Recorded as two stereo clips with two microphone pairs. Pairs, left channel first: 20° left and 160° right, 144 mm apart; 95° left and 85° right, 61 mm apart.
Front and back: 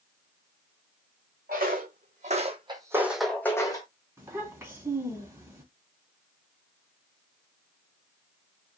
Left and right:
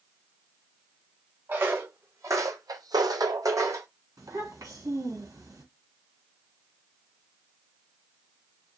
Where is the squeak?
No squeak in this recording.